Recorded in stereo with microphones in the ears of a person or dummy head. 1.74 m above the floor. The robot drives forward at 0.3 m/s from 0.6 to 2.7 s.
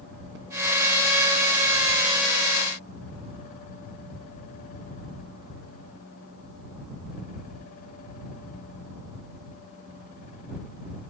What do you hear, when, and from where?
Only background noise.